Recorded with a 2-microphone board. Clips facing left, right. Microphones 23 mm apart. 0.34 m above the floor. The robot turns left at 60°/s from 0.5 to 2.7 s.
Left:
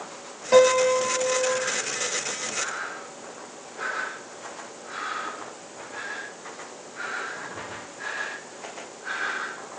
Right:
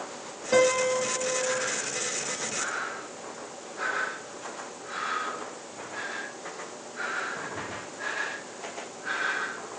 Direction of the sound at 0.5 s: 130° left.